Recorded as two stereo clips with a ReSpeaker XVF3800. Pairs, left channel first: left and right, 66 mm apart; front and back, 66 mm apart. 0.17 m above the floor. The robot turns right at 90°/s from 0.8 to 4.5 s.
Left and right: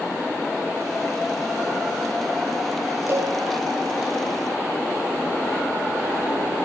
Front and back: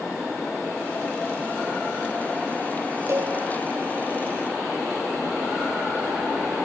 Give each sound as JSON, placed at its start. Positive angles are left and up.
{"t": 3.1, "sound": "a cowbell", "azimuth_deg": -140, "distance_m": 3.5}